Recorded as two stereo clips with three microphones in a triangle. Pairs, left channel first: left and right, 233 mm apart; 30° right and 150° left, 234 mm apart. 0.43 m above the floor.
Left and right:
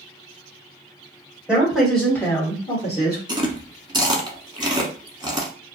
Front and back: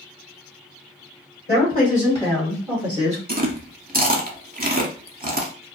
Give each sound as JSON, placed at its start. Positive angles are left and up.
{"t": 1.5, "sound": "a woman speaking", "azimuth_deg": -5, "distance_m": 1.6}
{"t": 3.3, "sound": "chewing", "azimuth_deg": -160, "distance_m": 0.6}